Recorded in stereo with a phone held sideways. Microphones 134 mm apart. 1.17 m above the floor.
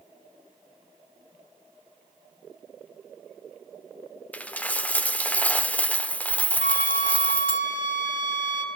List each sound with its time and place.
4.3 s a dropped coin: 10° left (ahead or behind), 1.0 m
6.6 s a flute: 75° left (ahead or behind), 3.5 m